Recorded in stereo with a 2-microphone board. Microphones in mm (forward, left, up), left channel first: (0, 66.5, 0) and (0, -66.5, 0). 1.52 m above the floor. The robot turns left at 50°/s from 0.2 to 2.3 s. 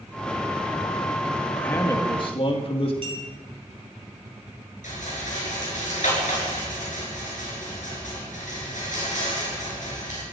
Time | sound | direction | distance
1.6 | a man speaking | 170° left | 2.5 m
3.0 | a clink | 45° right (ahead or behind) | 6.5 m
4.8 | a rattle | 70° left (ahead or behind) | 7 m